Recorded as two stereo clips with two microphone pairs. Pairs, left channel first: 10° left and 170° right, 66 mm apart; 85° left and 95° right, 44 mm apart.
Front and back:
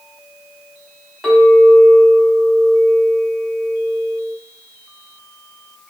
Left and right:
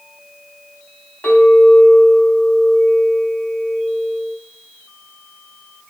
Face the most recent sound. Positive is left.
turn(degrees=110)